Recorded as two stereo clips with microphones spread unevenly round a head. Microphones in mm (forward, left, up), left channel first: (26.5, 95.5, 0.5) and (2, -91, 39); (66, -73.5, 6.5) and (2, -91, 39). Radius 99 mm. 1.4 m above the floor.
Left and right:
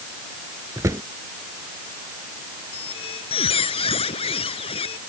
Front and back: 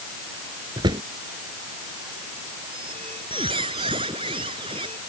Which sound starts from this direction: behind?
A drawer, at 0.8 s.